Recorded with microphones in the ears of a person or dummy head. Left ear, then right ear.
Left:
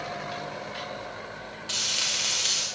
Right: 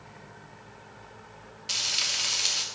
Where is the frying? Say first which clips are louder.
Even; 15° right (ahead or behind), 3 m.